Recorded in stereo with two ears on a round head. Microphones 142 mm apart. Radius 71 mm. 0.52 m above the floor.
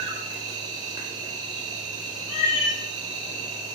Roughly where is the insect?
Right.